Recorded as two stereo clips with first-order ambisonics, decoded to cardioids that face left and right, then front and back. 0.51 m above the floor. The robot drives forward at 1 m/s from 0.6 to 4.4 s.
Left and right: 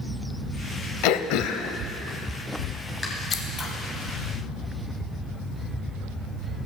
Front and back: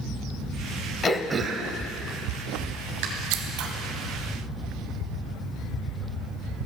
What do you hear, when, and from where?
1.0 s throat clearing: 70° left, 0.5 m; by 3.1 s 165° left, 1.9 m
3.3 s scissors: 155° left, 0.8 m; by 3.7 s 165° left, 1.1 m